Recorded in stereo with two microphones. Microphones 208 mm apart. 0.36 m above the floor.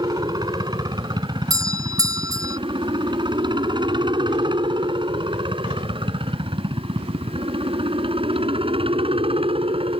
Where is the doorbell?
15° right (ahead or behind).